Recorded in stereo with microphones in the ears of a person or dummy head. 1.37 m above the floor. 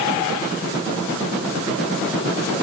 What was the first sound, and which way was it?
Only background noise.